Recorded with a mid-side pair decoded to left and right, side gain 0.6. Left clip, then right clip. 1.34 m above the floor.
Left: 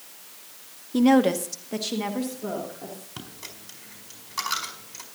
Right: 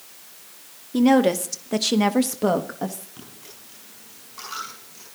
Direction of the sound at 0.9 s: Straight ahead.